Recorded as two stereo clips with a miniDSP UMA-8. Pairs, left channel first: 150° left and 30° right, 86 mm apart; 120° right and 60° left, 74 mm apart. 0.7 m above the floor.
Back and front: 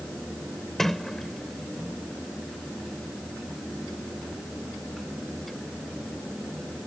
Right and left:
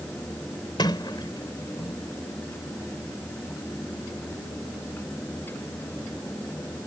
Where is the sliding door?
120° right.